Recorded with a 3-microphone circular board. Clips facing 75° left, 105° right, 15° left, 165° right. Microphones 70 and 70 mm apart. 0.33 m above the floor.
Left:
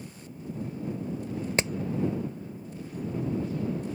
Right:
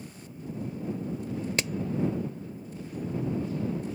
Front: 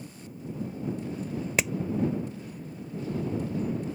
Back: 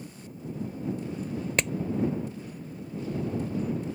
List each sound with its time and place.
1.6 s hammering: 95° left